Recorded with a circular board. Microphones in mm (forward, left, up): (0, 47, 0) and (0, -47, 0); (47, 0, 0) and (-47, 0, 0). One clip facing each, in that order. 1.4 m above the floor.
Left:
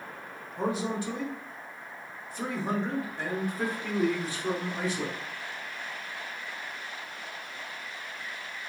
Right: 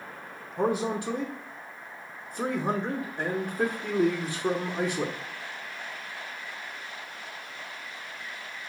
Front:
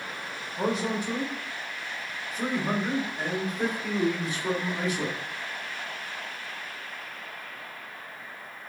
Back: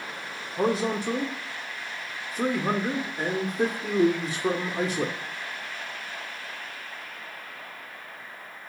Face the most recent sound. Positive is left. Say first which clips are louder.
# right 3 dB, back 3 dB
turn(degrees=-155)